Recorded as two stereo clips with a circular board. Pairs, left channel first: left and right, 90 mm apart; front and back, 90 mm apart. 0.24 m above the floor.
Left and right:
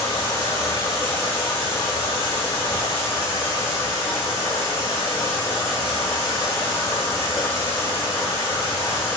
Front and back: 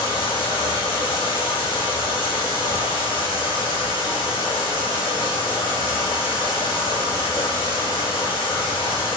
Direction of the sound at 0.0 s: 25° left.